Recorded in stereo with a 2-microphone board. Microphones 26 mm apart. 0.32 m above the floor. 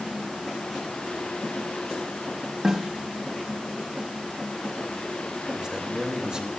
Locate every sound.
2.6 s a snare drum: 25° right (ahead or behind), 2.0 m
5.5 s a man speaking: 35° right (ahead or behind), 3.5 m